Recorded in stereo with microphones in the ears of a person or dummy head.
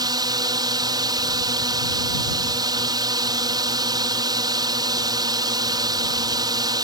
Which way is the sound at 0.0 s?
25° right (ahead or behind).